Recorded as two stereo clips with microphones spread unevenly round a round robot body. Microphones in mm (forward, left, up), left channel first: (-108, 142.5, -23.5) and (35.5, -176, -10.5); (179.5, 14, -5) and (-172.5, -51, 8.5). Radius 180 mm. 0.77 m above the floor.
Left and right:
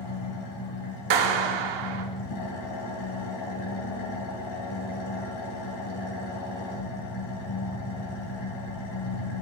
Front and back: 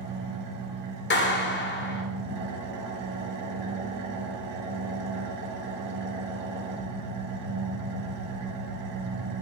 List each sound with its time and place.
0.0 s an engine running: 130° left, 2.5 m
1.1 s a clap: 50° right, 1.6 m